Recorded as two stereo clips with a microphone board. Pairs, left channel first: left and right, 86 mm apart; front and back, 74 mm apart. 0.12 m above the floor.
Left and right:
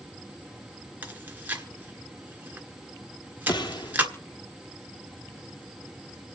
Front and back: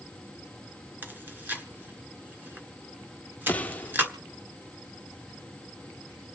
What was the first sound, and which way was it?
Chewing, 140° right.